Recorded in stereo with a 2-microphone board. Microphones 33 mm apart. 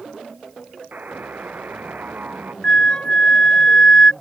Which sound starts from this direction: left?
A flute, at 2.6 s.